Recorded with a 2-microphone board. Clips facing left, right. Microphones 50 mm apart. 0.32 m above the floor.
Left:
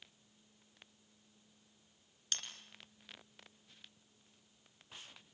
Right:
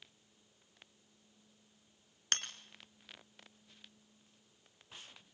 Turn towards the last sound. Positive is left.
turn(degrees=-50)  # may be behind; listen again after turning